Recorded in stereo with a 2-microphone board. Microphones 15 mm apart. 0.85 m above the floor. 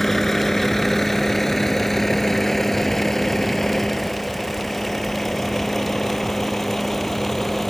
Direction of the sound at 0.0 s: 20° left (ahead or behind).